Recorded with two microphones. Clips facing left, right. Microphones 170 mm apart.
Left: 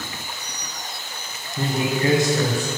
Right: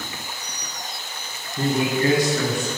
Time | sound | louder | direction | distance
1.6 | a man speaking | right 2 dB | 15° left (ahead or behind) | 1.2 m